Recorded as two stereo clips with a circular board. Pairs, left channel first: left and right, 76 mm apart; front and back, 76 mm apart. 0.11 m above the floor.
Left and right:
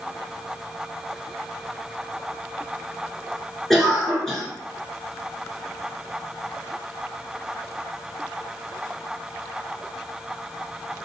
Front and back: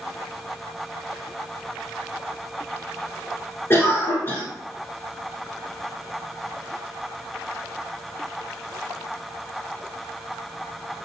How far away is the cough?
About 1.3 m.